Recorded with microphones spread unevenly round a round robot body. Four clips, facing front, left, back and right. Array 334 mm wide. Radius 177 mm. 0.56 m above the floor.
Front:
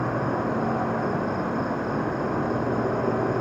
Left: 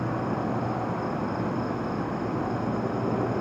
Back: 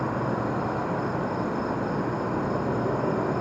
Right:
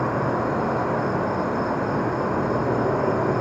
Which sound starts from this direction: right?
An insect, at 0.0 s.